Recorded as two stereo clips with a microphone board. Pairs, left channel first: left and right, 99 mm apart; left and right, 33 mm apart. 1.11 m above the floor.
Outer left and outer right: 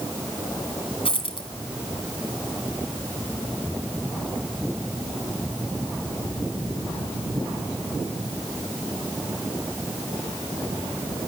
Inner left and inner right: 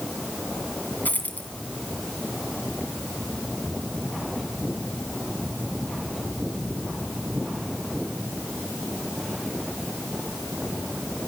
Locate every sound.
1.1 s a dropped coin: 65° left (ahead or behind), 2.5 m